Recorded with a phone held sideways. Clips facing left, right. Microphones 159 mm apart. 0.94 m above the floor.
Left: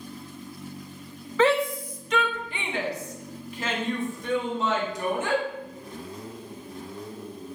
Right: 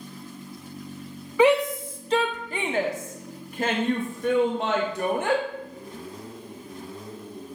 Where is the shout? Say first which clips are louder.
Right 3 dB; 10° right (ahead or behind), 1.0 m; by 5.4 s 60° right (ahead or behind), 2.5 m.